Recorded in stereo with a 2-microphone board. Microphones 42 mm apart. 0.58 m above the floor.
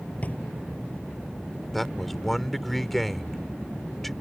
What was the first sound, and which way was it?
A drawer, 35° left (ahead or behind).